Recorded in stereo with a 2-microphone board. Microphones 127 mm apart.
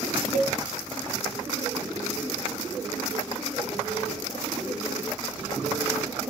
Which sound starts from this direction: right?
A cowbell, at 0.3 s.